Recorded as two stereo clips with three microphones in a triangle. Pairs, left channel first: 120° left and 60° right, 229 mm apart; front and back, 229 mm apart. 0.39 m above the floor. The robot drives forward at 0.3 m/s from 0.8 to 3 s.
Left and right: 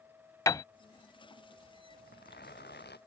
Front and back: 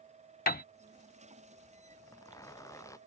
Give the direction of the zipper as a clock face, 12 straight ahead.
10 o'clock.